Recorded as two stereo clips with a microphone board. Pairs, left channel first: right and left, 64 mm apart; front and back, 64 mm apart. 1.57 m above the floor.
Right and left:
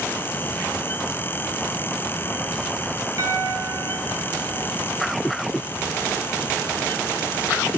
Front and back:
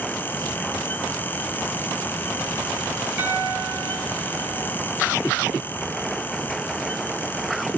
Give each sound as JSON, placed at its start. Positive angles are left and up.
{"t": 3.2, "sound": "a piano", "azimuth_deg": 120, "distance_m": 6.0}